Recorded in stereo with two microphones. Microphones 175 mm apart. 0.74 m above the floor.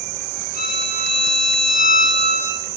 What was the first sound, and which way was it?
A violin, 45° right (ahead or behind).